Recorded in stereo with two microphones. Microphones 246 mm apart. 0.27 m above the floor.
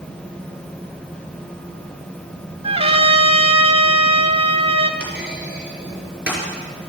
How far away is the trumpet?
About 1.1 m.